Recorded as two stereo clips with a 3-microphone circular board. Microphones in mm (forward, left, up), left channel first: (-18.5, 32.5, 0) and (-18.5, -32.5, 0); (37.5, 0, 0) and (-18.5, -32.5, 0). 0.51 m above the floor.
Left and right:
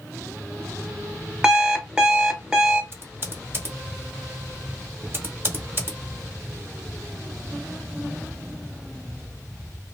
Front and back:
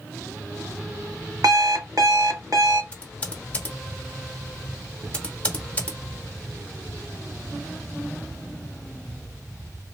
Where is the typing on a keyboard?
40° right, 0.8 m.